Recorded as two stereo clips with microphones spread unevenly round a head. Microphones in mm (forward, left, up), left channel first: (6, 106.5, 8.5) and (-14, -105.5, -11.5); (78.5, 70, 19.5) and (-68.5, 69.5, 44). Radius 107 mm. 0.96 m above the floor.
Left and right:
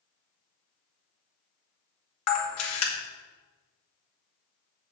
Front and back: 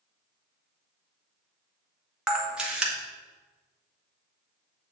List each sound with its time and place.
2.3 s a camera shutter: 90° left, 2 m